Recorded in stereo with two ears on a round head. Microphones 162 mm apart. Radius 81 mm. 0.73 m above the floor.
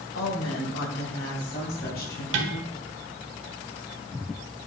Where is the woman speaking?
80° left, 3 m; by 2.2 s 55° left (ahead or behind), 5 m.